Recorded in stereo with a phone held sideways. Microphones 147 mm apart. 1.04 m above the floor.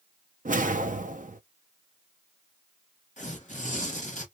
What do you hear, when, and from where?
0.5 s a whoosh: 60° right (ahead or behind), 0.6 m
3.2 s tearing paper: 55° left (ahead or behind), 1.1 m